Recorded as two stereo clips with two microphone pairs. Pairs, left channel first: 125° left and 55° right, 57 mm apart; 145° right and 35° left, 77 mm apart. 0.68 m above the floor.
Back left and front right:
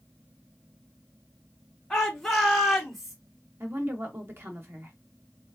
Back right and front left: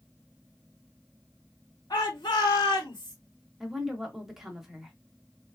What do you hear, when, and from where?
1.9 s a shout: 155° right, 2.0 m; by 3.1 s 145° right, 2.5 m
3.6 s a woman speaking: 45° right, 1.0 m